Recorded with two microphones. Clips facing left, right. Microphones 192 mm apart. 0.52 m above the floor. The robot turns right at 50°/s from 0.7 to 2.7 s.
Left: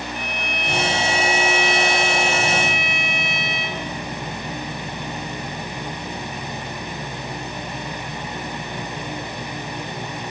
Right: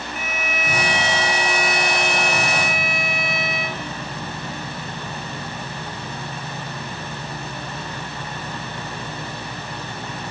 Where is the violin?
175° right, 2 m; by 3.9 s 75° right, 2 m.